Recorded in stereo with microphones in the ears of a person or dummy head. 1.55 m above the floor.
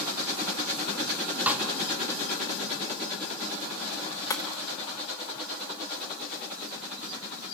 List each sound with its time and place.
1.5 s a snare drum: 10° right (ahead or behind), 1.5 m
4.3 s breaking glass: 20° left (ahead or behind), 1.2 m